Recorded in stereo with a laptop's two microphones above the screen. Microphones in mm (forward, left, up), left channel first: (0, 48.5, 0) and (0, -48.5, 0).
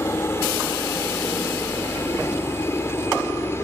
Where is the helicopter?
25° left (ahead or behind).